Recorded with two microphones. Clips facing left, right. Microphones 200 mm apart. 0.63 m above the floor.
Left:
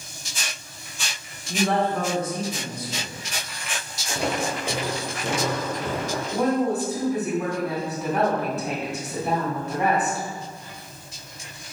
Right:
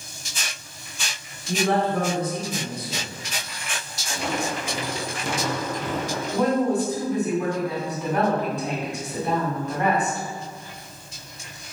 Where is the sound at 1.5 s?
60° right (ahead or behind), 1.6 m.